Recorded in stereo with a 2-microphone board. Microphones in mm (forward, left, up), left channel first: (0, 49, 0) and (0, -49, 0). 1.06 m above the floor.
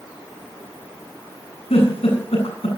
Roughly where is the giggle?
Left.